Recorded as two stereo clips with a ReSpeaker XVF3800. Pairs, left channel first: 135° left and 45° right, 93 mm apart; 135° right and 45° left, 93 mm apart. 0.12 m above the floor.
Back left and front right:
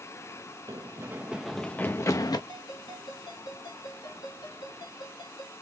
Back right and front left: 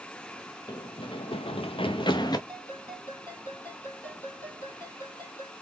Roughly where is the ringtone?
Behind.